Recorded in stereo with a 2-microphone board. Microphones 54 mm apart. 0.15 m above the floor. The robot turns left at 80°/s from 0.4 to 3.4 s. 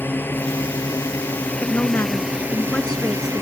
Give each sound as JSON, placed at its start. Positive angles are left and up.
{"t": 0.0, "sound": "a drone", "side_deg": 40}
{"t": 1.6, "sound": "a woman speaking", "azimuth_deg": 120}